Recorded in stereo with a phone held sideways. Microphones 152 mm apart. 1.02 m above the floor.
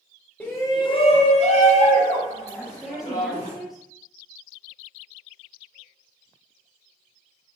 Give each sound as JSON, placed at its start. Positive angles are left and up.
{"t": 0.4, "sound": "a shout", "side_deg": 10, "distance_m": 0.7}
{"t": 2.5, "sound": "a woman speaking", "side_deg": 0, "distance_m": 0.7}